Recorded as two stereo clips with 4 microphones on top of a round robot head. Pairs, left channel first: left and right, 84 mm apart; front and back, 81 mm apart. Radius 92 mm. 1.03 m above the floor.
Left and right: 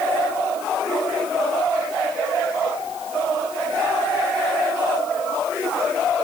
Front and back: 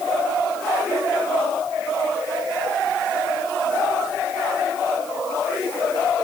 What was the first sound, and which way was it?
Only background noise.